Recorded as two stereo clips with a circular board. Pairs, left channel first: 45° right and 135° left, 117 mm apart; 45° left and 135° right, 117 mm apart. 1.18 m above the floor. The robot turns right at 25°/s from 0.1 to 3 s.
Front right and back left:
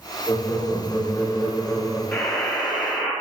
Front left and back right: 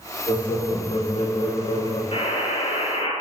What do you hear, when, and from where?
0.3 s laughter: 10° left, 2.5 m; by 2.0 s 55° left, 2.5 m
2.1 s a buzzer: 25° left, 3 m; by 3.1 s 50° left, 3 m